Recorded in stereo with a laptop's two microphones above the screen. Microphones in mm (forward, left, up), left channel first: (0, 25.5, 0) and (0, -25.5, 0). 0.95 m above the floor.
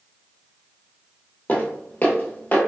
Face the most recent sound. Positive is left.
turn(degrees=35)  # may be behind; listen again after turning